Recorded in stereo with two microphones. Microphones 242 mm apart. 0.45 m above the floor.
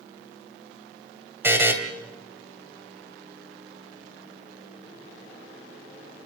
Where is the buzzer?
10° right (ahead or behind), 2.5 m.